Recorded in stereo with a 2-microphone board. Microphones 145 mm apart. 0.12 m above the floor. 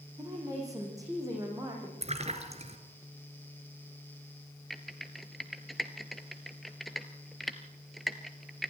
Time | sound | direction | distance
0.2 | a woman speaking | 25° right (ahead or behind) | 6 m
2.0 | a splash | 50° right (ahead or behind) | 2 m
4.7 | typing on a keyboard | centre (ahead or behind) | 1.2 m